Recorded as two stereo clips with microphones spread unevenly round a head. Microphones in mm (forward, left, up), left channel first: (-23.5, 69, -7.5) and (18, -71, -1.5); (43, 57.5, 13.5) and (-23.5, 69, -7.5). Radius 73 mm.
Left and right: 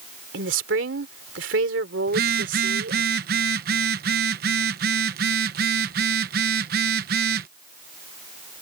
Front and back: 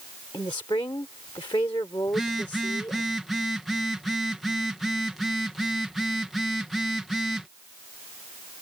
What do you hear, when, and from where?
0.3 s a woman speaking: 70° right
2.1 s a phone buzzing: 95° right